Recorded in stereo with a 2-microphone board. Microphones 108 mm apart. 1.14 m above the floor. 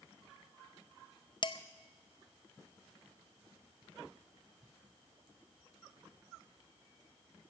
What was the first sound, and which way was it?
Dishes clattering, 45° left (ahead or behind).